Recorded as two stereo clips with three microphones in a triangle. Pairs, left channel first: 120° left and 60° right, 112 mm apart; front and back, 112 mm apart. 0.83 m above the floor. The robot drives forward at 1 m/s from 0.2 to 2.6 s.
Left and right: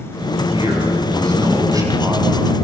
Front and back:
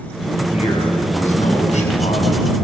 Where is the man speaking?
Straight ahead, 9 m.